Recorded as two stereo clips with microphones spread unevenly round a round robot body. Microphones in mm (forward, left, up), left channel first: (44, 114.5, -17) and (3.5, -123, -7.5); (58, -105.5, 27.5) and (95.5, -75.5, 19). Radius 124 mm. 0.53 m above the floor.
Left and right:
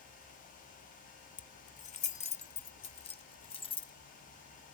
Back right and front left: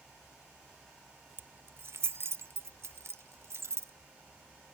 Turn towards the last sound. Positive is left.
turn(degrees=15)